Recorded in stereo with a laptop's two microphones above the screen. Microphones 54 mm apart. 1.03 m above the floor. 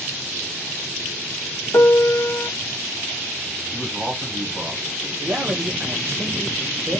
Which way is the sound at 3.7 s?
20° right (ahead or behind).